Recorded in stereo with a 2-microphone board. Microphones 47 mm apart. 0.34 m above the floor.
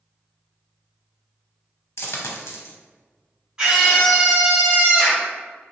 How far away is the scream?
About 1.1 m.